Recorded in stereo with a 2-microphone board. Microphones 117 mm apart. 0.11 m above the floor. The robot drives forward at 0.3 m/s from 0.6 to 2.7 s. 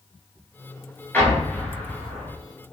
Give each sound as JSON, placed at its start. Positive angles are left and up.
{"t": 1.1, "sound": "an explosion", "side_deg": 20, "distance_m": 1.3}